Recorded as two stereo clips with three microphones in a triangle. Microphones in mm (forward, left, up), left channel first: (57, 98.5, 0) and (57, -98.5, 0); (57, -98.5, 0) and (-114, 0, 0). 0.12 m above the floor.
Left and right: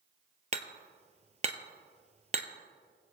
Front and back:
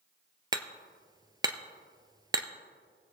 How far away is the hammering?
About 0.6 m.